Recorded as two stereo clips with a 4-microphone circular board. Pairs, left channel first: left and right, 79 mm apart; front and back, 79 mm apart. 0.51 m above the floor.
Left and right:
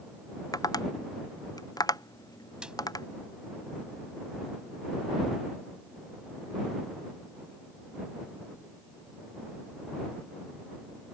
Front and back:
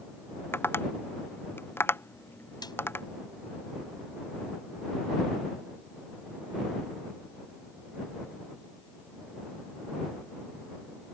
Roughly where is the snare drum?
Ahead.